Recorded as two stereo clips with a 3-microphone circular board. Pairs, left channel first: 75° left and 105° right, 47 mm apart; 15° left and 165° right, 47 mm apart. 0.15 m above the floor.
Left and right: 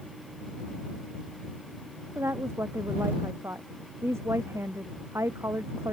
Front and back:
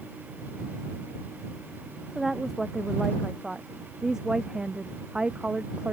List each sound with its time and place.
2.1 s a woman speaking: 80° right; by 5.9 s 100° right